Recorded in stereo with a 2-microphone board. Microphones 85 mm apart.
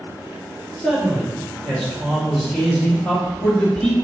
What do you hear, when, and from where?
0.8 s a man speaking: 10° left (ahead or behind), 1.6 m; by 4.0 s 15° left (ahead or behind), 3.5 m